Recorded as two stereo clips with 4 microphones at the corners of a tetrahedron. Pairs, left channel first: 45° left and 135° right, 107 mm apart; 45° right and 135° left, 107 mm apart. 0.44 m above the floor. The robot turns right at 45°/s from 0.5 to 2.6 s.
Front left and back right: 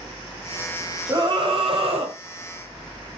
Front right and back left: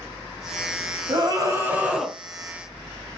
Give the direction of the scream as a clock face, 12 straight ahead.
6 o'clock.